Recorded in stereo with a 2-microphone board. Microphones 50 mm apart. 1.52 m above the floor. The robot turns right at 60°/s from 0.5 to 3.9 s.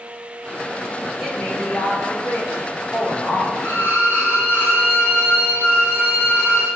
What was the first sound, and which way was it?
A woman speaking, 5° right.